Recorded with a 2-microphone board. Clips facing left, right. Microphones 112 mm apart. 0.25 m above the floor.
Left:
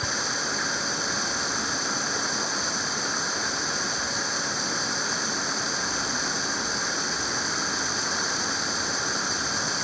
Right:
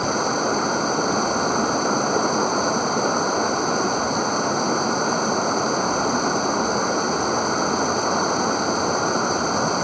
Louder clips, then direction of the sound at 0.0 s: Right 10 dB; 50° right (ahead or behind).